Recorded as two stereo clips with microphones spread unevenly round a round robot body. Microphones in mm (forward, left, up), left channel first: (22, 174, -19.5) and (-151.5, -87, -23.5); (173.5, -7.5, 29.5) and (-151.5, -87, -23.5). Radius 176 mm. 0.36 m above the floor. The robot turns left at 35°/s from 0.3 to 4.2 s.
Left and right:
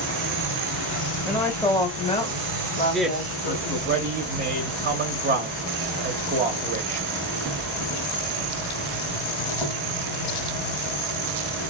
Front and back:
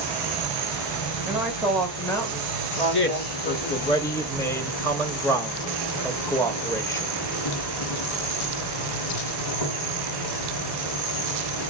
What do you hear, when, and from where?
0.0 s an insect: 115° left, 1.4 m; by 11.7 s 25° right, 1.4 m
1.3 s a woman speaking: 135° left, 1.1 m; by 3.9 s 45° left, 1.1 m
2.9 s a man speaking: 30° right, 1.0 m; by 7.1 s 75° right, 1.0 m